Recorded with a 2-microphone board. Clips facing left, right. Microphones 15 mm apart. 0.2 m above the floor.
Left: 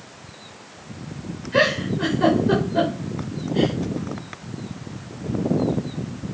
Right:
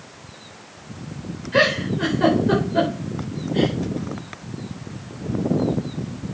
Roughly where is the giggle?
Centre.